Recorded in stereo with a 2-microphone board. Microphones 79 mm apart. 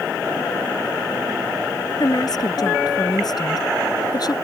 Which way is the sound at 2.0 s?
55° left (ahead or behind).